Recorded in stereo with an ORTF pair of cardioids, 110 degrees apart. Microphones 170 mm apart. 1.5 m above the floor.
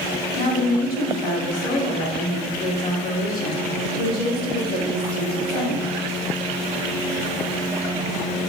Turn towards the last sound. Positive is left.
turn(degrees=60)